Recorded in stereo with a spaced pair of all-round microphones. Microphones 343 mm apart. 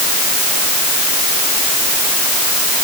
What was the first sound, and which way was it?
Only background noise.